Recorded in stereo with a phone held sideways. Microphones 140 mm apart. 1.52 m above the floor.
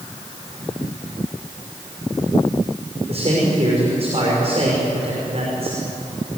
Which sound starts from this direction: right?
A man speaking, at 3.1 s.